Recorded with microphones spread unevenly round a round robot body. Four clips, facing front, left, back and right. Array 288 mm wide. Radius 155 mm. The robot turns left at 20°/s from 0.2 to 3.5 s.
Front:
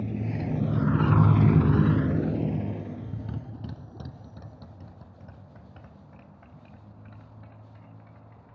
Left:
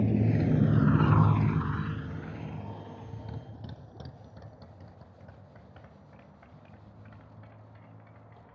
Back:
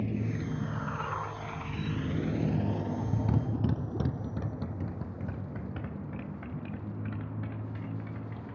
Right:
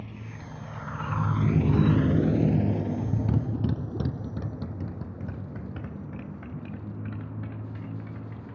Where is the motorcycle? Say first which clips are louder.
Left 15 dB, front 2 dB; 90° left; by 8.6 s 130° right.